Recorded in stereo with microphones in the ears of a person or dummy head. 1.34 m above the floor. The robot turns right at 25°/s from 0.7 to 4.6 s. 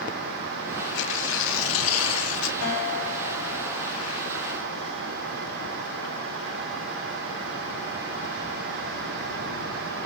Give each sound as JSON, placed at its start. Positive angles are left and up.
{"t": 0.9, "sound": "tearing paper", "azimuth_deg": 65, "distance_m": 0.6}
{"t": 2.6, "sound": "a guitar", "azimuth_deg": 105, "distance_m": 5.0}